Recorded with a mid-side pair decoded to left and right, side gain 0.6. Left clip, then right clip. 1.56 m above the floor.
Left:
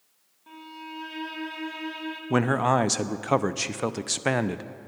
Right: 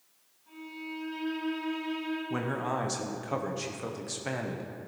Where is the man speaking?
50° left, 0.5 m.